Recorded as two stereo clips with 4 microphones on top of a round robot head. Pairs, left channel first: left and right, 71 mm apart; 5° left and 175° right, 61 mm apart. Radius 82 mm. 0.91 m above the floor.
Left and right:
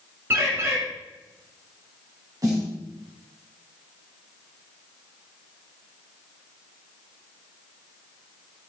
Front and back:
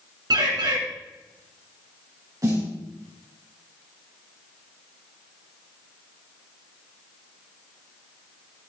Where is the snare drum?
135° right, 4.5 m.